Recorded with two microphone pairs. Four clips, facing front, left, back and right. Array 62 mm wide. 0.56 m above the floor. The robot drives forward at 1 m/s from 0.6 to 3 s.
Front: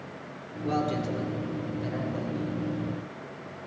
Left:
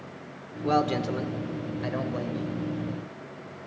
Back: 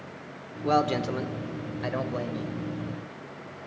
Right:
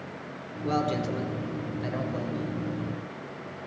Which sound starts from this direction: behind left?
A man speaking, at 0.6 s.